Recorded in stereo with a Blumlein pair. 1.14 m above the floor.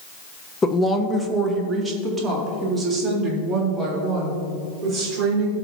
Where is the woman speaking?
15° left, 0.8 m; by 5.5 s 20° right, 5 m.